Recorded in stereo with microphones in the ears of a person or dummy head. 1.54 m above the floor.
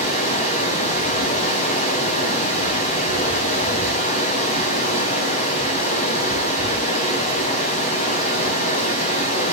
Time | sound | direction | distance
0.0 | running water | 45° left (ahead or behind) | 4 m